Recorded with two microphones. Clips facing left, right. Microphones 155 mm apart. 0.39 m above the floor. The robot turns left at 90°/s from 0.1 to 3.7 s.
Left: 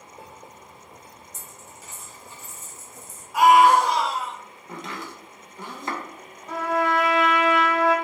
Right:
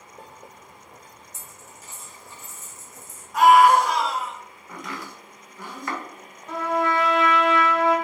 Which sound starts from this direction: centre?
A trumpet, at 6.5 s.